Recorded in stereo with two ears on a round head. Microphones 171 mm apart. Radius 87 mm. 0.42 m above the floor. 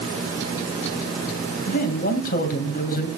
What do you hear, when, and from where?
1.7 s a man speaking: 50° left (ahead or behind), 2.5 m